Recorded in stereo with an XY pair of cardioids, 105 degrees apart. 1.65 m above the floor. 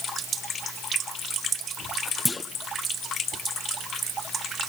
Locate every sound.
2.2 s a clunk: 15° left, 0.8 m